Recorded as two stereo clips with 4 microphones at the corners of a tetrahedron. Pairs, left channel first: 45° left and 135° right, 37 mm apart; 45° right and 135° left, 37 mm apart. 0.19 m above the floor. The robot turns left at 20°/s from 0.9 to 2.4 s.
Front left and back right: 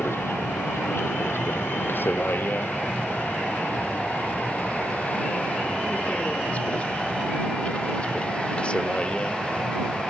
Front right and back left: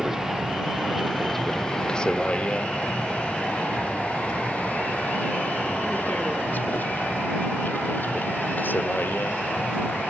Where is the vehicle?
55° left; by 10.1 s 20° right.